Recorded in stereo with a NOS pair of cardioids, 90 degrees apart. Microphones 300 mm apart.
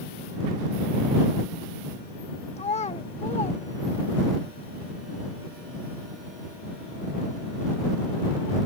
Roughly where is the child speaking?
Ahead.